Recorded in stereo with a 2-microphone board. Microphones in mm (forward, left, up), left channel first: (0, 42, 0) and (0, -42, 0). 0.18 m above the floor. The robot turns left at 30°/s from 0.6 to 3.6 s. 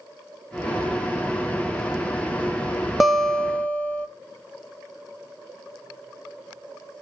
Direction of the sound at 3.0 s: Centre (ahead or behind).